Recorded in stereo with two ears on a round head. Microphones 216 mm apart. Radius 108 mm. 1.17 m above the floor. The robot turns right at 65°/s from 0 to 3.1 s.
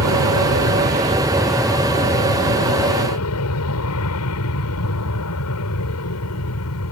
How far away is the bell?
I don't hear a bell.